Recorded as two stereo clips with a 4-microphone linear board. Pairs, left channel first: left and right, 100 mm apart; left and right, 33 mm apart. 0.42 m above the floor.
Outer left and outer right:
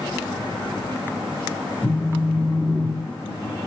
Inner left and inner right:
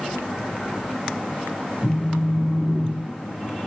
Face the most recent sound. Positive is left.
turn(degrees=-5)  # may be behind; listen again after turning